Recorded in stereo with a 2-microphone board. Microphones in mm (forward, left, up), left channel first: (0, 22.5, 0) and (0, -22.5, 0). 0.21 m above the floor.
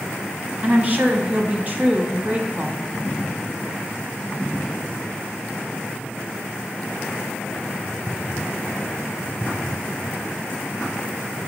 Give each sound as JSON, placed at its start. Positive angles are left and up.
{"t": 0.6, "sound": "a woman speaking", "side_deg": -35, "distance_m": 1.1}